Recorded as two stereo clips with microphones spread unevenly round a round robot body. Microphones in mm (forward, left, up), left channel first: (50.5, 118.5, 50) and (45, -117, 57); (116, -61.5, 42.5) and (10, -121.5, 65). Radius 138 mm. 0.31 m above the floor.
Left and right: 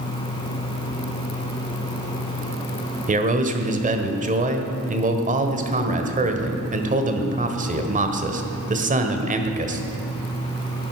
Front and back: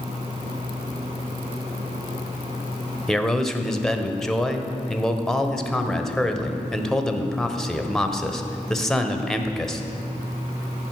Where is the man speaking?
45° right, 1.5 m.